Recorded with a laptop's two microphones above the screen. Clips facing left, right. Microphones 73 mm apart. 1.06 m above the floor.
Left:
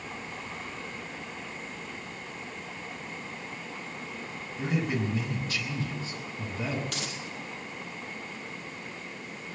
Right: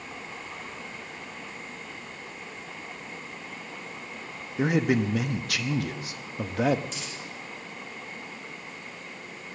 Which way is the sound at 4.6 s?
75° right (ahead or behind).